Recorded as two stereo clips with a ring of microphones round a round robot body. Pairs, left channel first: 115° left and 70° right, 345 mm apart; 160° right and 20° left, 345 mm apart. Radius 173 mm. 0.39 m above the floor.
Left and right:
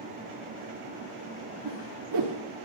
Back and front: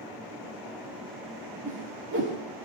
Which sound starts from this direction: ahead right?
A whoosh, at 1.6 s.